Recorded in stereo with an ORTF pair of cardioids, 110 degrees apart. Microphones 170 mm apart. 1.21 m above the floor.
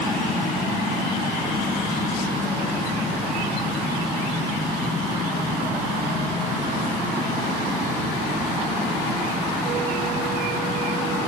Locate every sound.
Only background noise.